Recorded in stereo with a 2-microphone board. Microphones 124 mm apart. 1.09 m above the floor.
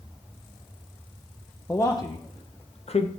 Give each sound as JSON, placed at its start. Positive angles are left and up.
{"t": 1.7, "sound": "a man speaking", "side_deg": 15, "distance_m": 0.6}